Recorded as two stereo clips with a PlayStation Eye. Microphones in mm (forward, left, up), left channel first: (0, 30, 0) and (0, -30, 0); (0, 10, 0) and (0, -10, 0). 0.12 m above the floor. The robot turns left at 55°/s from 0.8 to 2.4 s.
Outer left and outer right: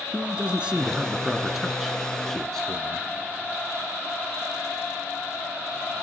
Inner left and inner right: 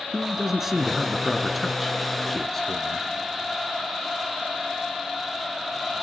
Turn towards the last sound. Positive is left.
turn(degrees=10)  # may be behind; listen again after turning